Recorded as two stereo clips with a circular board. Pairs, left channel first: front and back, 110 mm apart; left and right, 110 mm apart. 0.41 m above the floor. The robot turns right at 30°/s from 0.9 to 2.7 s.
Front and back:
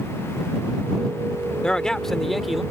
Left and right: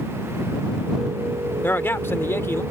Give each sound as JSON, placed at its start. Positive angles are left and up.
{"t": 1.6, "sound": "a man speaking", "azimuth_deg": 65}